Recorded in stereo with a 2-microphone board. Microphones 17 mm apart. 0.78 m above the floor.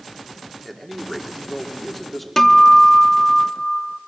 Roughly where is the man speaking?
Centre.